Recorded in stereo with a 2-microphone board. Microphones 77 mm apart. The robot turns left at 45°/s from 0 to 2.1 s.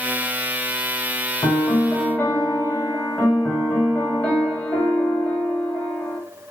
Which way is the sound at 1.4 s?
50° left.